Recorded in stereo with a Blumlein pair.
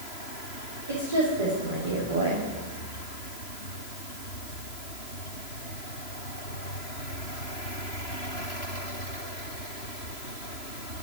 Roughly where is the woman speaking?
Right.